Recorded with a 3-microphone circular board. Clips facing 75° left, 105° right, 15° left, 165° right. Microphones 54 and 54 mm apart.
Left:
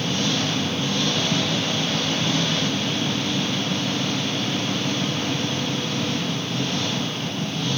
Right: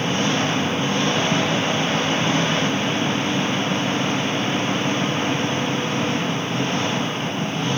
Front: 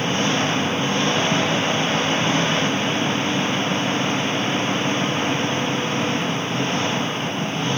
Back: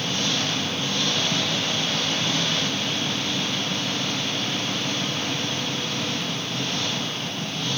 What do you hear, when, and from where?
0.0 s an engine running: 45° right